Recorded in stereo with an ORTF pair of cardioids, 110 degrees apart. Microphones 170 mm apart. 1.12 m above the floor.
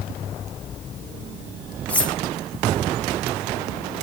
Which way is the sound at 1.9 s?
10° left.